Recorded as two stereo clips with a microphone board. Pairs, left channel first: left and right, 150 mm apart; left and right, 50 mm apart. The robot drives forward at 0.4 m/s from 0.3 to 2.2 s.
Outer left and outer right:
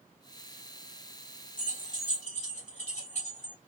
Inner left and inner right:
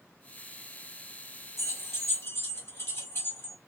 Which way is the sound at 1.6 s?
65° left (ahead or behind).